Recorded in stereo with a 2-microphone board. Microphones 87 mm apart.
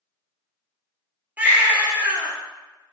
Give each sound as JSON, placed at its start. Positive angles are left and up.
{"t": 1.4, "sound": "a baby crying", "side_deg": -15, "distance_m": 1.1}